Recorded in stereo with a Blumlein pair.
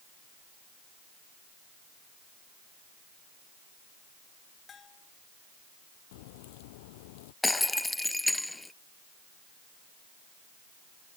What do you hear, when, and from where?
4.7 s a bell: 20° left
6.1 s a crack: 50° left
7.4 s breaking glass: 5° left